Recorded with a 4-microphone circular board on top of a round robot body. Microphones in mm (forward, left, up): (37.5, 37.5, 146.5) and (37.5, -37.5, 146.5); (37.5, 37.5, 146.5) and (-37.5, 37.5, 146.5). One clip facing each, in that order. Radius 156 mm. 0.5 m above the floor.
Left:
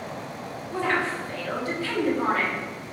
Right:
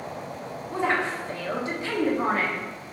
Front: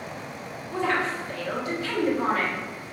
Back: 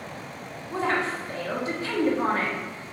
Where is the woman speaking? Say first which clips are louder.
Even, even; 150° right, 1.4 m.